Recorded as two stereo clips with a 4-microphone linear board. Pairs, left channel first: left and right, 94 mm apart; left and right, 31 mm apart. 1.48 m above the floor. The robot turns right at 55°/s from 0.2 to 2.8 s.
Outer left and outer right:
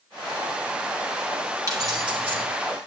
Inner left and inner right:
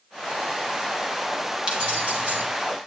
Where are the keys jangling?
145° right, 5 m; by 2.4 s 100° right, 5 m.